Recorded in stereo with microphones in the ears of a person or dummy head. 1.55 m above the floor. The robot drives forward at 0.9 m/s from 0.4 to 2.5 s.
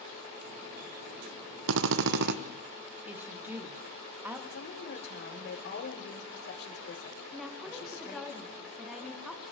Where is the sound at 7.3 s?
Centre (ahead or behind), 2.0 m.